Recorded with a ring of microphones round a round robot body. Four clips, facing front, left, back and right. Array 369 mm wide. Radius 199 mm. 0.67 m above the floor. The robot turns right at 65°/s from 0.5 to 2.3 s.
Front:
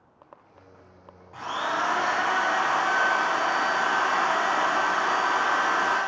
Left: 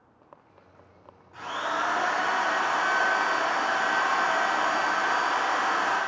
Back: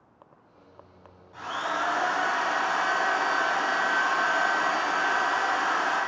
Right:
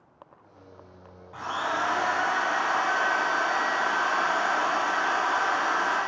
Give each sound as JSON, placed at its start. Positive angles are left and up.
{"t": 1.3, "sound": "a drill", "azimuth_deg": -50, "distance_m": 2.5}